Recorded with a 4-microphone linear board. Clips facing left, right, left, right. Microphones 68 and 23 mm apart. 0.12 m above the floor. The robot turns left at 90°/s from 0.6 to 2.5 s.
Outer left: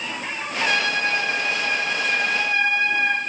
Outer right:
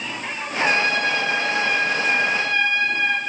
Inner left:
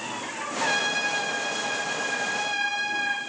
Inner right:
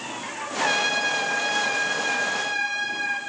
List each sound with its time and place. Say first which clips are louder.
0.6 s a trumpet: outer right 2 dB, inner right 3 dB; 20° right, 3.5 m; by 3.2 s 170° left, 3.5 m